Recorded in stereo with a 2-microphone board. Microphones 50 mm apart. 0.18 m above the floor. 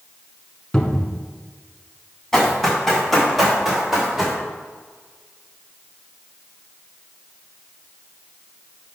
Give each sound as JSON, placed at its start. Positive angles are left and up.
{"t": 0.7, "sound": "a cupboard door", "side_deg": 15, "distance_m": 1.0}
{"t": 2.3, "sound": "running footsteps", "side_deg": 5, "distance_m": 3.5}